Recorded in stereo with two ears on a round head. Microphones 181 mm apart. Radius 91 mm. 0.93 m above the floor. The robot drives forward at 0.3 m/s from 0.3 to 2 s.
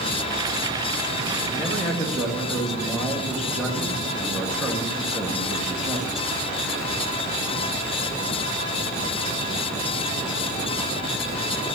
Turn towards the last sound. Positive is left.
turn(degrees=0)  # may be behind; listen again after turning